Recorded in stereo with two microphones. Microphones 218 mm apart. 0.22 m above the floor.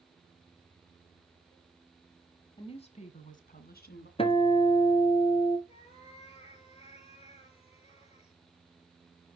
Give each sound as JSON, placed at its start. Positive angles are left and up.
{"t": 2.6, "sound": "a woman speaking", "side_deg": 25, "distance_m": 1.5}
{"t": 4.2, "sound": "a guitar", "side_deg": 25, "distance_m": 1.1}
{"t": 5.7, "sound": "a cat meowing", "side_deg": 25, "distance_m": 5.5}